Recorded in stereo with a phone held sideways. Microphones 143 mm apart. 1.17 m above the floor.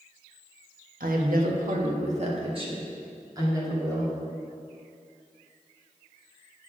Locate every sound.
1.0 s a woman speaking: 90° right, 1.3 m; by 4.1 s 20° right (ahead or behind), 2.5 m